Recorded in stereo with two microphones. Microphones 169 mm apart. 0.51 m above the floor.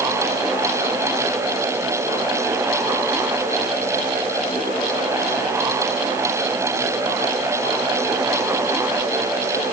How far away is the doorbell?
No doorbell in this recording.